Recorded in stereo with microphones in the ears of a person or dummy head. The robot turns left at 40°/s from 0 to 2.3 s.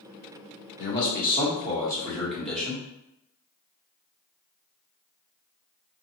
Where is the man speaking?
65° left, 1.1 m; by 2.9 s 5° left, 1.1 m.